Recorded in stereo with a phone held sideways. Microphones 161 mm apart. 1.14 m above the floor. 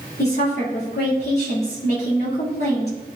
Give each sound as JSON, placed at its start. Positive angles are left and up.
{"t": 0.2, "sound": "a woman speaking", "side_deg": 80, "distance_m": 2.5}